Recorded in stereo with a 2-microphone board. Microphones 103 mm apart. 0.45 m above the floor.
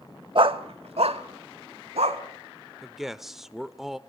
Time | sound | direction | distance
0.3 | a dog barking | 55° right (ahead or behind) | 0.8 m
2.8 | a man speaking | 5° right (ahead or behind) | 1.0 m